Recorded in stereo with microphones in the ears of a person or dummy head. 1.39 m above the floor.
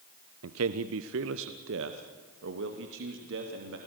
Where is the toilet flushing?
I don't hear a toilet flushing.